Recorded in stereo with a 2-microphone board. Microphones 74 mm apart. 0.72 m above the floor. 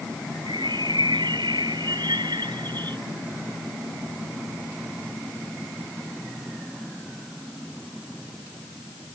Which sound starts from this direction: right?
A bird, at 0.5 s.